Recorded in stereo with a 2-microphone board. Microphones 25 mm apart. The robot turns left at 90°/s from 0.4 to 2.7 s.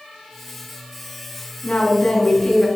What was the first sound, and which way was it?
A woman speaking, 80° left.